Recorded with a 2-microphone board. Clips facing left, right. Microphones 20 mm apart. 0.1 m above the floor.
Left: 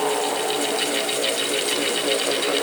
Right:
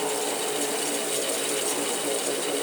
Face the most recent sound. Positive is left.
No sound to turn to.